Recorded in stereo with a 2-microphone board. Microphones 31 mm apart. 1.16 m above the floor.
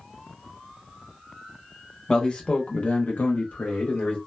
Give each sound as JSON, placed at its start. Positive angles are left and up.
{"t": 2.1, "sound": "a man speaking", "side_deg": 25, "distance_m": 1.1}